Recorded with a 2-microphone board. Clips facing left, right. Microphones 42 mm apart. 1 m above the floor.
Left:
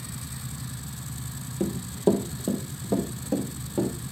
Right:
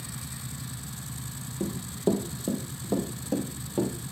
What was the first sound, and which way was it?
Running footsteps, 30° left (ahead or behind).